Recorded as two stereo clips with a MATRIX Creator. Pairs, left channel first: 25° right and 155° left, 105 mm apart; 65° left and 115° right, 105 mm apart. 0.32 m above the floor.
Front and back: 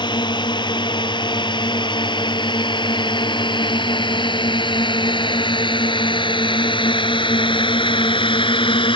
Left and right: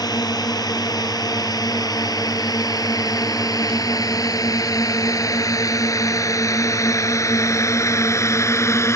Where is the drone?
15° left; by 9.0 s 5° left.